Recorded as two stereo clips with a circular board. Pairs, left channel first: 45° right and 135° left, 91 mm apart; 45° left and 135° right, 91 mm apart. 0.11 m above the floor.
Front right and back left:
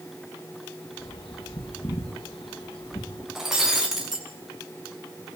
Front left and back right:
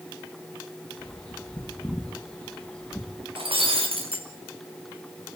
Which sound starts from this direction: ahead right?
A bird, at 1.0 s.